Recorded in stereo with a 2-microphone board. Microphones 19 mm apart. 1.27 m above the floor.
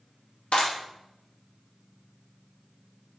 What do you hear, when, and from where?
0.5 s a clap: 85° left, 2 m